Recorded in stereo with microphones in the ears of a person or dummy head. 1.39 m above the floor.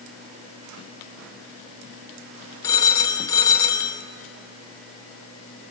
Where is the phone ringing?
15° left (ahead or behind), 1.3 m.